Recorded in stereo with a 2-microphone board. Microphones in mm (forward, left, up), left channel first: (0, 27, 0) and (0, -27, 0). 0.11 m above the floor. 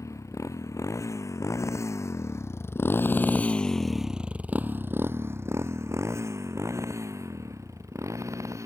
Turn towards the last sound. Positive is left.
turn(degrees=-75)  # may be behind; listen again after turning